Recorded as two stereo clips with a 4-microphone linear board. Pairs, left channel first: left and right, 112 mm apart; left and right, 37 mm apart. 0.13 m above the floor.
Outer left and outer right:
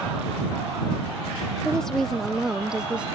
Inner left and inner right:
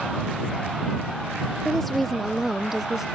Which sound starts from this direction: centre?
A woman speaking, at 1.6 s.